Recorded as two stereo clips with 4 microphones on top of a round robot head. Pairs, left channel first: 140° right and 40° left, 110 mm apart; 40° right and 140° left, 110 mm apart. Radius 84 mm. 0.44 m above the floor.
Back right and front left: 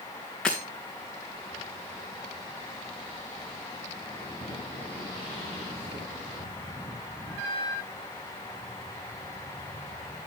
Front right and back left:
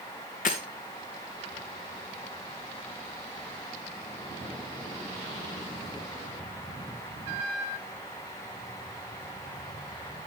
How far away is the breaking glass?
About 2.5 m.